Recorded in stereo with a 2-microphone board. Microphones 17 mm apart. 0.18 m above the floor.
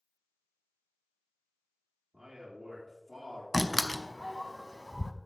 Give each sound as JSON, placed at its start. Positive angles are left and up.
{"t": 2.1, "sound": "a man speaking", "side_deg": -30, "distance_m": 3.0}
{"t": 3.5, "sound": "a door slam", "side_deg": 20, "distance_m": 0.7}